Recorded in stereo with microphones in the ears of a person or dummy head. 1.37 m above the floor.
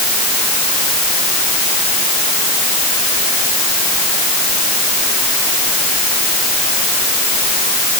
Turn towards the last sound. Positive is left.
No sound to turn to.